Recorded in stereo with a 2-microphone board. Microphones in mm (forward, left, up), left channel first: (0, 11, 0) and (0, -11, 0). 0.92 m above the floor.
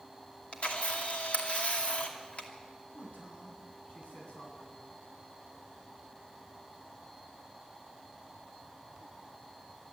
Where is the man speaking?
80° left, 8 m.